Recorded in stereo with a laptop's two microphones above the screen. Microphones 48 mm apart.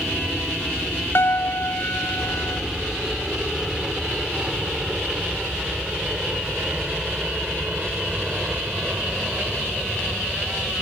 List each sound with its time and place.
0.0 s a helicopter: 5° right (ahead or behind); by 10.8 s 25° right (ahead or behind)
1.1 s a piano: 50° left (ahead or behind)